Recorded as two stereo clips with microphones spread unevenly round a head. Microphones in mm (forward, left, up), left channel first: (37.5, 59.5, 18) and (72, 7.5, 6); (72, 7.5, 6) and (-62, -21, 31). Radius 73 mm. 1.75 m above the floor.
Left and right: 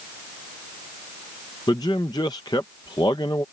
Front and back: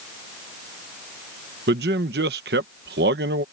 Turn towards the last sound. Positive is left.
turn(degrees=180)